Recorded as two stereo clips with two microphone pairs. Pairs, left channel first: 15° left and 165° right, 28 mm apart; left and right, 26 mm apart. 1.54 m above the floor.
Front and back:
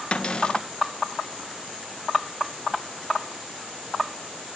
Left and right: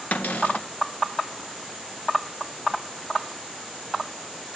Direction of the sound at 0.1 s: 75° left.